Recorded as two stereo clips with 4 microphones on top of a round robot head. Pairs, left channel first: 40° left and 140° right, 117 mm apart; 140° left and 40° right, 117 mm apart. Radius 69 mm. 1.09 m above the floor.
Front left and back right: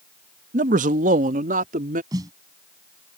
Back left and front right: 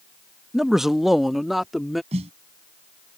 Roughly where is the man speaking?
Behind right.